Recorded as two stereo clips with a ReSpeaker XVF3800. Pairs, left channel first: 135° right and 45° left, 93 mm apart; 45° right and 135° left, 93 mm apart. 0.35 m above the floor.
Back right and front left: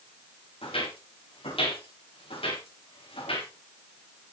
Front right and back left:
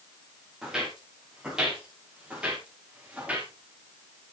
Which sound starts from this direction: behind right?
Footsteps, at 0.6 s.